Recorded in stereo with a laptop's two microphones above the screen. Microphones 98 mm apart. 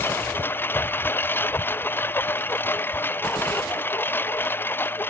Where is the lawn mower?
20° left (ahead or behind).